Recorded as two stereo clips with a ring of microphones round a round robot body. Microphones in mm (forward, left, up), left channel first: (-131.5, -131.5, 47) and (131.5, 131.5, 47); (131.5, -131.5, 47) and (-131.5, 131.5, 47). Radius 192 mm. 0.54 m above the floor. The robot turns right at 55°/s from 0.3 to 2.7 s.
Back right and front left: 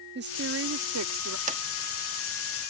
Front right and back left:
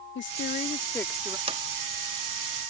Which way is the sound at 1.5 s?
80° left.